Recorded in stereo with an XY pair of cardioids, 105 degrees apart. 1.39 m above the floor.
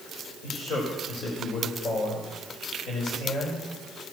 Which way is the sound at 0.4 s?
70° left.